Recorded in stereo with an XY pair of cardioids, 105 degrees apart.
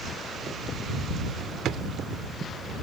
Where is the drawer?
70° right.